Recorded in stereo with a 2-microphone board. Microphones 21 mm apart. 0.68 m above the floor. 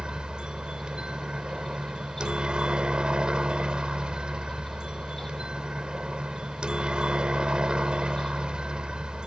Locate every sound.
0.0 s a helicopter: 50° right (ahead or behind)